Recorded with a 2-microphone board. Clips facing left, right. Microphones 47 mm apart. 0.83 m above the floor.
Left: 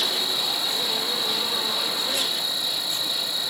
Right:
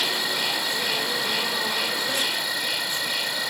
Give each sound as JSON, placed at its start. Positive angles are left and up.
{"t": 0.0, "sound": "an insect", "side_deg": -60}